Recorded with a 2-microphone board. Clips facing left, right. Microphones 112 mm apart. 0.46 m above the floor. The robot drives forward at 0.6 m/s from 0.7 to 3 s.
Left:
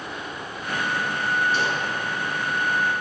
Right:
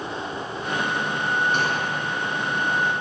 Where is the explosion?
55° right (ahead or behind), 2.5 m; by 1.9 s 50° right (ahead or behind), 2.5 m.